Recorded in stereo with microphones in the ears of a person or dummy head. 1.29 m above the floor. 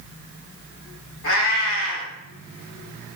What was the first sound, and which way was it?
A cat meowing, 65° left (ahead or behind).